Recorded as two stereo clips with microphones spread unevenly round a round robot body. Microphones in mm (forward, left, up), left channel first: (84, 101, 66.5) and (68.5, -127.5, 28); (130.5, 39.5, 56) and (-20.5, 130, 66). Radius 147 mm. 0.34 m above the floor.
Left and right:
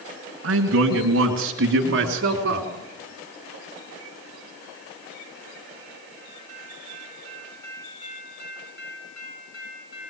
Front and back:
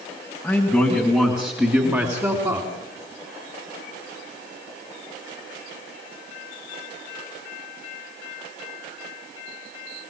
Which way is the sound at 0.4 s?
115° right.